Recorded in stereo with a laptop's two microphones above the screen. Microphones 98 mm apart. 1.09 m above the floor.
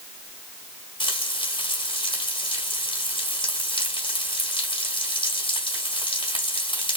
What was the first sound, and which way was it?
Frying, 60° left (ahead or behind).